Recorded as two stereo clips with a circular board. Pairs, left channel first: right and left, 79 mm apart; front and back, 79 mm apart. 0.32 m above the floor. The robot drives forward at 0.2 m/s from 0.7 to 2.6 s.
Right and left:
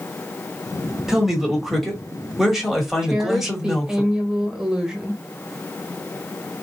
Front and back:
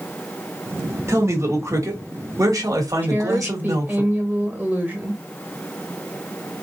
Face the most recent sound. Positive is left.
turn(degrees=160)